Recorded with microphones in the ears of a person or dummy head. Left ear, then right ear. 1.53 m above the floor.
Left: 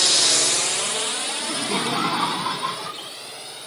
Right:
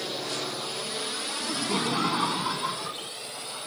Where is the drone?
55° left (ahead or behind); by 3.7 s 5° left (ahead or behind).